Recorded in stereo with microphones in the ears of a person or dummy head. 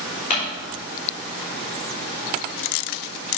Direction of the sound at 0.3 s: 40° left (ahead or behind).